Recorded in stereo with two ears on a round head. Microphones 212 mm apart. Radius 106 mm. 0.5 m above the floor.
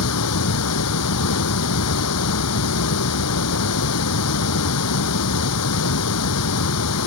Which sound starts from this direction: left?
Running water, at 0.0 s.